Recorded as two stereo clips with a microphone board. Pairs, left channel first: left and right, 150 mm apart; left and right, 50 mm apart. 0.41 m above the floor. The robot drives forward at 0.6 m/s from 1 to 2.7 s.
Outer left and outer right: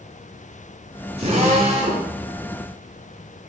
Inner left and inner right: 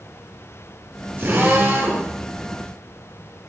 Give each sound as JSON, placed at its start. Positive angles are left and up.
{"t": 1.2, "sound": "a drill", "side_deg": -40, "distance_m": 6.5}